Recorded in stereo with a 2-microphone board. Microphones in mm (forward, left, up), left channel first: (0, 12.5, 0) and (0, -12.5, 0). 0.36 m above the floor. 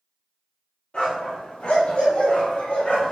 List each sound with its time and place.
0.9 s a dog barking: 45° left (ahead or behind), 3 m; by 3.1 s 65° left (ahead or behind), 2.5 m